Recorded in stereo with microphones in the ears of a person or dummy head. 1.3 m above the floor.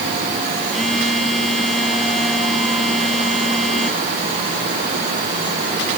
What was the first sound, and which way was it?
A phone buzzing, centre (ahead or behind).